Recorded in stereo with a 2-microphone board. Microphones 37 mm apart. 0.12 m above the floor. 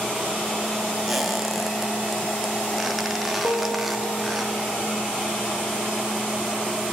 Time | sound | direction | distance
1.1 | a squeak | centre (ahead or behind) | 2 m
3.4 | a piano | 35° left (ahead or behind) | 6 m